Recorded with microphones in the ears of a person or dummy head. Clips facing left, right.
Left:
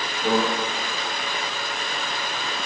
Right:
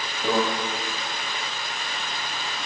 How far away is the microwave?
About 5 m.